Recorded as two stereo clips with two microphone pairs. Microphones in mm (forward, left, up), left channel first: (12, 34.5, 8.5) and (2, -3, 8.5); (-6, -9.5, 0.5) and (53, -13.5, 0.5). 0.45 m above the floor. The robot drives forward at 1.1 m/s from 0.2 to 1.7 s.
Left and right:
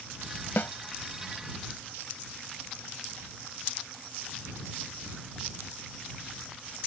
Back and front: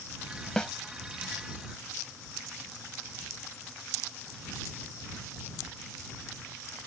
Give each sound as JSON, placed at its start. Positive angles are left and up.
{"t": 0.6, "sound": "a snare drum", "azimuth_deg": 95}